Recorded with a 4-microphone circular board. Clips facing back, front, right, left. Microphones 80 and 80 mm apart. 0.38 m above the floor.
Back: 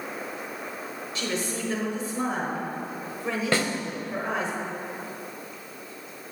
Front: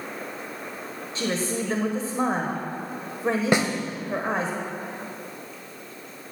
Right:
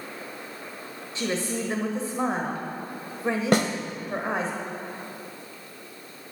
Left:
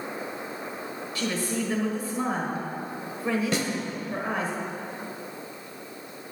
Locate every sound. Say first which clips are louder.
1.1 s a woman speaking: front 4 dB, right 1 dB; 35° right, 1.3 m
3.5 s a snare drum: front 2 dB, right 6 dB; 70° right, 0.8 m